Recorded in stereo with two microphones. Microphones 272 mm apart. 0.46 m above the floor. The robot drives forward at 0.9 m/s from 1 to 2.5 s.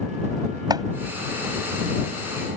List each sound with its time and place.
0.7 s chopping: 15° right (ahead or behind)